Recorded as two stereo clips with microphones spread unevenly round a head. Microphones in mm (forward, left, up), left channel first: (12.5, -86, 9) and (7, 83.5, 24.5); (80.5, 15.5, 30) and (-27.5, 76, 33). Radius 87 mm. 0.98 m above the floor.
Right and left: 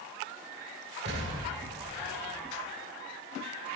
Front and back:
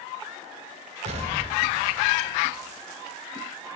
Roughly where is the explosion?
Behind left.